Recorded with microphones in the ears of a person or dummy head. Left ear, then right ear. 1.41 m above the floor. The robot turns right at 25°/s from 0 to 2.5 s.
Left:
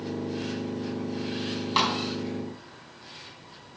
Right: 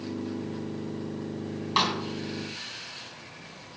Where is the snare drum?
5° left (ahead or behind), 4.5 m; by 2.0 s centre (ahead or behind), 4.5 m.